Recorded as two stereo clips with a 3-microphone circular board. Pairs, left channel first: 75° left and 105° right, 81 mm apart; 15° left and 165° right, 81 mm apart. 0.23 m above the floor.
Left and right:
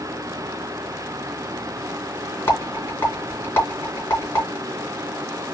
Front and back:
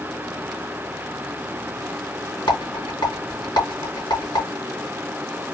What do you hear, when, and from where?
2.5 s a rattle: 25° left, 3.5 m